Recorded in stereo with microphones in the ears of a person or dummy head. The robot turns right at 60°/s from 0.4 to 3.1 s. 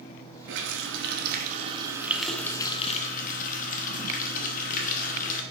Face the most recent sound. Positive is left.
turn(degrees=50)